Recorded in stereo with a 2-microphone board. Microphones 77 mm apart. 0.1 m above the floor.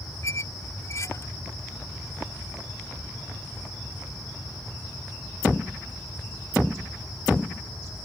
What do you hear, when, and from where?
0.2 s a squeak: 40° left (ahead or behind)